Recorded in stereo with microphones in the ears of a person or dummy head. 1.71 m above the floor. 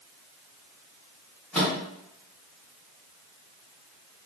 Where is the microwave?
Centre (ahead or behind), 0.7 m.